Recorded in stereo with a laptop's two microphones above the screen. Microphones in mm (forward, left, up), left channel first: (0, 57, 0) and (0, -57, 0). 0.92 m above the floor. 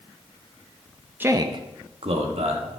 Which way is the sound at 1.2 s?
15° right (ahead or behind).